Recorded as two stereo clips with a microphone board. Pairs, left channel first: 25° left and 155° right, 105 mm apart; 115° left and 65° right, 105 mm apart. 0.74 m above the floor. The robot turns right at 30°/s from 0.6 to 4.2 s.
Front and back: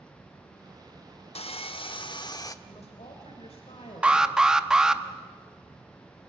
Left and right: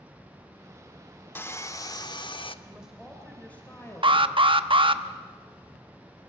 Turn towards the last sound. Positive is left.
turn(degrees=-75)